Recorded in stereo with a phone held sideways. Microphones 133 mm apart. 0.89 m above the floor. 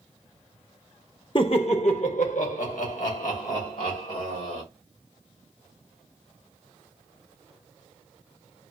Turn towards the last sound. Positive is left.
turn(degrees=80)